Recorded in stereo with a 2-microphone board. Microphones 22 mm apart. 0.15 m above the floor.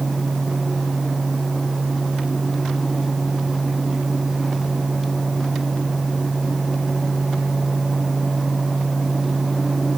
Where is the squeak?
No squeak in this recording.